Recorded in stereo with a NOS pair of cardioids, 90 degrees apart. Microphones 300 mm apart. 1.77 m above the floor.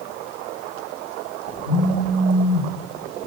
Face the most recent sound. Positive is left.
turn(degrees=60)